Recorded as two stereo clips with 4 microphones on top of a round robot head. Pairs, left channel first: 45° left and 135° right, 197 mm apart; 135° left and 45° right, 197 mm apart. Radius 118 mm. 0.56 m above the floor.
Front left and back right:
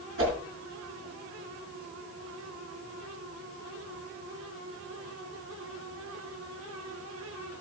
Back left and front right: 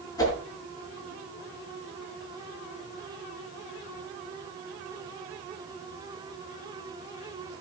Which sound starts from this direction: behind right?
A whoosh, at 0.2 s.